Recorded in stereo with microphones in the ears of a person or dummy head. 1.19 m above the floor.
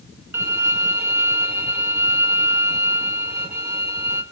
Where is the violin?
15° right (ahead or behind), 1.2 m.